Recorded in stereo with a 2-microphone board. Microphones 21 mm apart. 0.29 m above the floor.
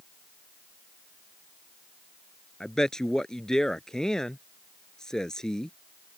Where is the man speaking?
25° left (ahead or behind).